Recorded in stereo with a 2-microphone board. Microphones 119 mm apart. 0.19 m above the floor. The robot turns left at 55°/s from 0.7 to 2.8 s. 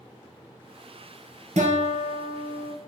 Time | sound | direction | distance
1.6 | a guitar | 100° right | 1.2 m